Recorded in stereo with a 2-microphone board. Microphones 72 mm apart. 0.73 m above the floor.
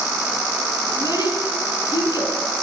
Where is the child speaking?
65° left (ahead or behind), 6 m.